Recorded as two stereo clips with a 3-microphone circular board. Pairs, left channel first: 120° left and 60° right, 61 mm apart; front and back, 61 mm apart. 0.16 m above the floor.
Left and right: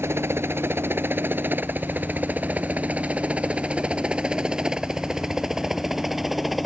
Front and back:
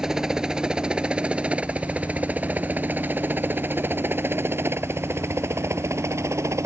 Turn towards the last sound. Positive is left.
turn(degrees=-150)